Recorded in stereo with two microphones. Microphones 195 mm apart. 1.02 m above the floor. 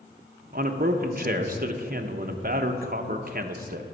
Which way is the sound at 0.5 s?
50° right (ahead or behind).